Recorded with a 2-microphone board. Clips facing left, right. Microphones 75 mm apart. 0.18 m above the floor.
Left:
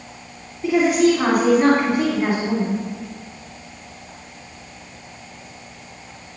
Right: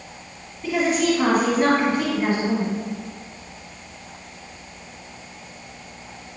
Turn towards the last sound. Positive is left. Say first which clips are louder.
# left 5 dB
turn(degrees=15)  # may be behind; listen again after turning